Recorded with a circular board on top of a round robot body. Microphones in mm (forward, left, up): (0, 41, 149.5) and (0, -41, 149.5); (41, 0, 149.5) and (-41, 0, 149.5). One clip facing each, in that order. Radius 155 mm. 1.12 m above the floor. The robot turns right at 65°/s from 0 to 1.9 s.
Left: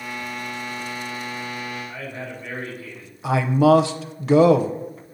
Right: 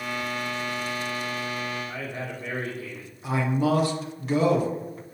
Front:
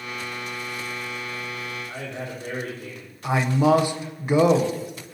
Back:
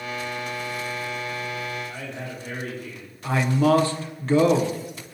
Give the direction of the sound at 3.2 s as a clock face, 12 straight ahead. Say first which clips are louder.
Left 8 dB, front 1 dB; 9 o'clock.